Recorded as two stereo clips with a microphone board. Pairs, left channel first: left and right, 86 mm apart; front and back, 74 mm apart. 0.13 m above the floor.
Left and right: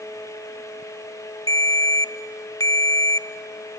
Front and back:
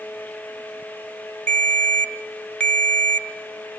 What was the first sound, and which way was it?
A ringtone, 70° left.